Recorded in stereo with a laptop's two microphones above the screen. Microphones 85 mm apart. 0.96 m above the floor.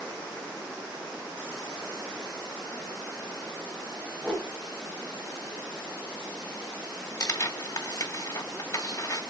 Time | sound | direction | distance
4.2 | a whoosh | 10° left (ahead or behind) | 1.3 m
7.2 | tearing paper | 45° left (ahead or behind) | 3 m